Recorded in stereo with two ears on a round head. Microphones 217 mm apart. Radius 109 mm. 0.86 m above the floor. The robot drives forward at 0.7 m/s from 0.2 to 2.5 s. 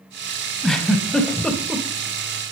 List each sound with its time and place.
0.6 s a giggle: centre (ahead or behind), 2 m; by 1.9 s 5° left (ahead or behind), 1.4 m